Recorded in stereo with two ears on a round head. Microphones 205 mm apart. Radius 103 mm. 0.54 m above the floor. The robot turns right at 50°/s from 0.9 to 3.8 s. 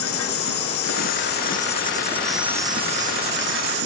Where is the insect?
110° left; by 3.9 s 105° right.